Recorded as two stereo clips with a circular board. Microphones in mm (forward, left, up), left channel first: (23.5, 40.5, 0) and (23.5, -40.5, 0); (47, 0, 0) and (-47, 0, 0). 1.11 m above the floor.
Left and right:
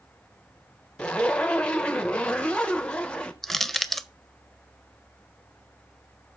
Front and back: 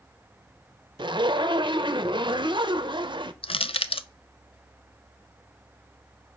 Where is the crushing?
5° left, 0.6 m.